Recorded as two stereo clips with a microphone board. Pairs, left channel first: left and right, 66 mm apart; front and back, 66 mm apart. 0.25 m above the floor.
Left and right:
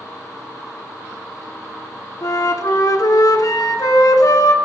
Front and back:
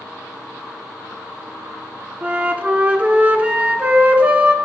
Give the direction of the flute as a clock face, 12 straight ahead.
8 o'clock.